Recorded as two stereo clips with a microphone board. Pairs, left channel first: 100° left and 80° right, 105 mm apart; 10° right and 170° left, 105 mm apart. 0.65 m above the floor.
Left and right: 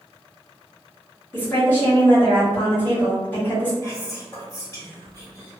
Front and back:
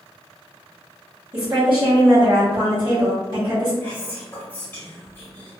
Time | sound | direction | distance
1.3 | a woman speaking | 165° left | 1.2 m
3.8 | whispering | 50° left | 1.5 m